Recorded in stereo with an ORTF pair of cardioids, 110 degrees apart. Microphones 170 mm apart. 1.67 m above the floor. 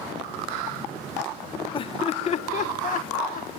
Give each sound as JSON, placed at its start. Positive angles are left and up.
{"t": 1.7, "sound": "laughter", "azimuth_deg": 30, "distance_m": 1.2}